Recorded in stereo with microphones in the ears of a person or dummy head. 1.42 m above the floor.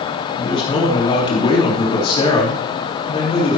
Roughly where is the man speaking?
Left.